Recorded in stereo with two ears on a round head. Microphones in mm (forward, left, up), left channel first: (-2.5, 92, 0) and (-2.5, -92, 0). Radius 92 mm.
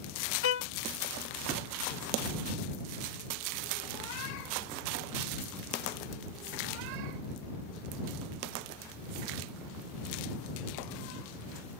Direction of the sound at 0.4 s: 60° left (ahead or behind).